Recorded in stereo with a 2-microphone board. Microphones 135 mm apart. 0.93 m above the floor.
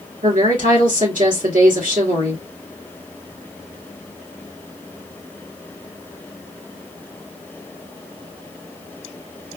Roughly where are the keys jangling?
No keys jangling in this recording.